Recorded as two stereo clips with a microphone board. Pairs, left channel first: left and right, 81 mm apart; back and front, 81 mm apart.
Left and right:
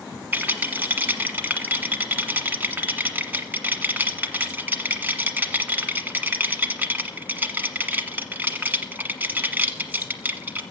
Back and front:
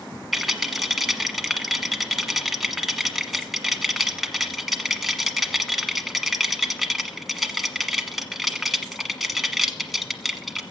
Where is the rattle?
85° right, 1.3 m.